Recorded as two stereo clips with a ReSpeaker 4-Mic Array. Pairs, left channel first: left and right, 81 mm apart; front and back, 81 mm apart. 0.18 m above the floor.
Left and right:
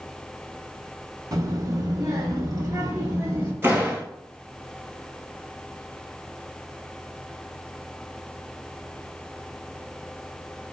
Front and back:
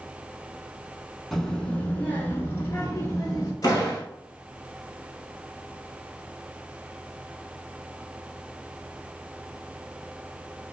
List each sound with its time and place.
1.3 s a child speaking: 85° right, 0.9 m; by 3.5 s 50° right, 1.7 m
3.6 s a door slam: 35° right, 1.4 m